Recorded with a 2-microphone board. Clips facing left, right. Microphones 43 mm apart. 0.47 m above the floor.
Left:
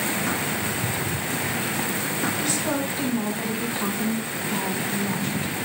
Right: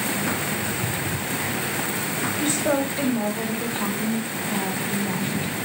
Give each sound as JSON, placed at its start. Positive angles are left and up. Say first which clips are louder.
{"t": 2.4, "sound": "a woman speaking", "louder": "right 3 dB", "side_deg": -35, "distance_m": 2.0}